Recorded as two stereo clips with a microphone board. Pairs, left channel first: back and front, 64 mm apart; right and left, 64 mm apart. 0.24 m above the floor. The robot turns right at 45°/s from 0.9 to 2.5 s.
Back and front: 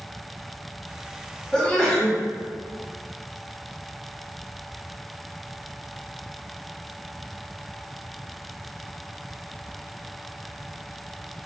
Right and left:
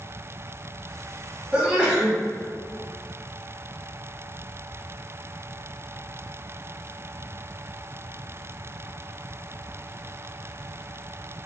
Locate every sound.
1.5 s a sneeze: 125° left, 1.1 m; by 2.2 s 155° left, 1.1 m